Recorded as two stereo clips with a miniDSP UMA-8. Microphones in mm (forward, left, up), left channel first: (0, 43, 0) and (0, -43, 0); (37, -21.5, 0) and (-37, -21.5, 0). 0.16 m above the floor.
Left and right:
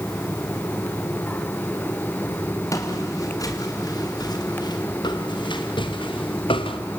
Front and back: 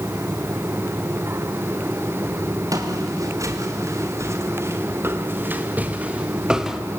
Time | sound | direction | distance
2.7 | footsteps | 145° left | 4 m